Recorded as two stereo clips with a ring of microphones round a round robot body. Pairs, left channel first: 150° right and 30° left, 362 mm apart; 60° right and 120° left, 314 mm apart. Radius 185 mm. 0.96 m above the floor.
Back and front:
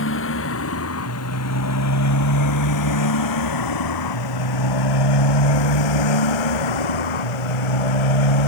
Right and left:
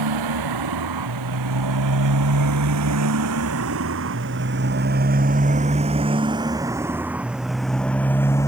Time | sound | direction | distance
0.0 | a motorcycle | 155° left | ?